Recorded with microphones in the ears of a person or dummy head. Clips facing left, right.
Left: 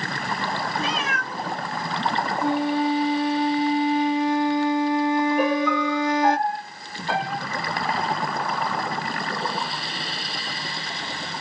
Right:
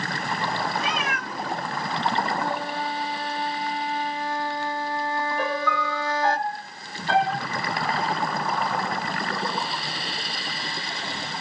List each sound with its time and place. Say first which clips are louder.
0.8 s a cat meowing: left 1 dB; 35° left (ahead or behind), 2 m
2.4 s a flute: left 7 dB; 15° left (ahead or behind), 0.7 m
5.4 s a piano: left 6 dB; 5° left (ahead or behind), 1.8 m